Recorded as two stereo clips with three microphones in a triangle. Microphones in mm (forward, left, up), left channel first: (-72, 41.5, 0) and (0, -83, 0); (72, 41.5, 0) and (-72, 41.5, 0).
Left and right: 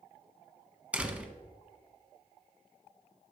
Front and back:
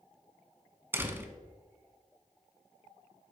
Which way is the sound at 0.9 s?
130° right.